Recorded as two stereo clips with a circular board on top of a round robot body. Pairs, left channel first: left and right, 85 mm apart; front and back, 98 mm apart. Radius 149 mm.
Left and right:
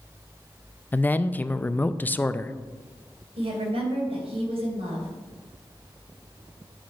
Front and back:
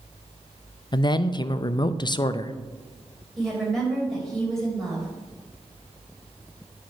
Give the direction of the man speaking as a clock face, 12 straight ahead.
11 o'clock.